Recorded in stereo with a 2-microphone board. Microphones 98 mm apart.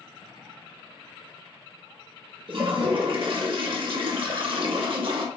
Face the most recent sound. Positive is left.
turn(degrees=-60)  # may be behind; listen again after turning